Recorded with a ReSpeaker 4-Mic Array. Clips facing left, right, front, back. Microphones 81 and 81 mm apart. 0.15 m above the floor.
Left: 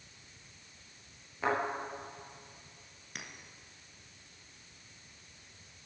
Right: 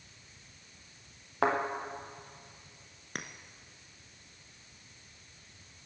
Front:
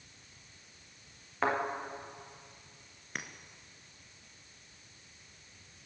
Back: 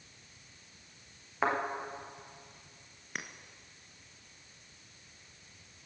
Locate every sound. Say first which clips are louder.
1.4 s a thud: right 3 dB, even; 95° right, 4.5 m
3.1 s a clink: right 5 dB, even; 95° right, 0.9 m